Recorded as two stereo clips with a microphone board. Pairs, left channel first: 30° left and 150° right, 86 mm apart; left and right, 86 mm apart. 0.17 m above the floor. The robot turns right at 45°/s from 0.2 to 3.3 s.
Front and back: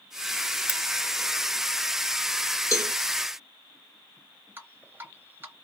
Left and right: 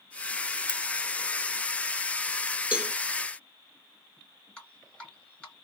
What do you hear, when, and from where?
0.7 s a crack: 80° right, 0.9 m; by 0.8 s 75° right, 0.9 m
2.7 s a cowbell: 20° right, 0.7 m; by 2.9 s 10° right, 0.7 m
4.6 s dripping: 165° left, 1.9 m